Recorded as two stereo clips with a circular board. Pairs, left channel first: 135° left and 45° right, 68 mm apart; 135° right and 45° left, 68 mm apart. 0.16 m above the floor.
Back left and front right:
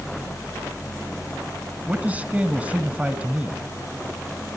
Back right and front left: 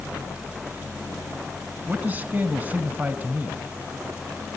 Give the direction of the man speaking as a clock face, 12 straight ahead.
12 o'clock.